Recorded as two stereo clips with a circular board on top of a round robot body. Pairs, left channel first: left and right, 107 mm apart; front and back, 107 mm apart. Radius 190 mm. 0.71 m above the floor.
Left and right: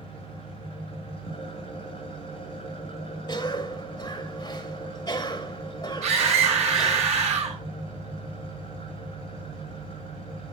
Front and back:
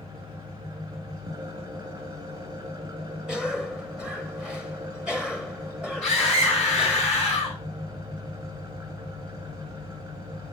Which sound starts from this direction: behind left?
An engine running, at 0.0 s.